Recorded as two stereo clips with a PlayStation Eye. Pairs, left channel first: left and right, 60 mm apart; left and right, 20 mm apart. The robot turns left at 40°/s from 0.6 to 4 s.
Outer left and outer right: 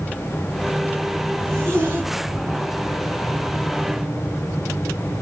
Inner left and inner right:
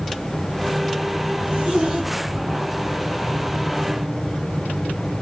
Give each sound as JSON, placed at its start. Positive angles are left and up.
{"t": 1.4, "sound": "a zipper", "side_deg": -55, "distance_m": 3.5}